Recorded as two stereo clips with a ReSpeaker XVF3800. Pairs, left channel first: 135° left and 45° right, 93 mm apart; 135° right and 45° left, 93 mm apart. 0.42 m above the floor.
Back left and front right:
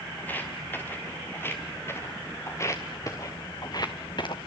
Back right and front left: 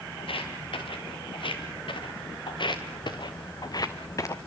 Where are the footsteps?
155° right, 4.5 m; by 4.4 s 165° left, 1.7 m.